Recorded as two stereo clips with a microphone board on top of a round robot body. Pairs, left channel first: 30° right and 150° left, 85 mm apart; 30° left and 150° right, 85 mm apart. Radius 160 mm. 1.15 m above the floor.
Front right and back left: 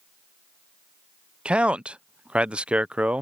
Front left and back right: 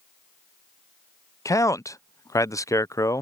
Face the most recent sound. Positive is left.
turn(degrees=75)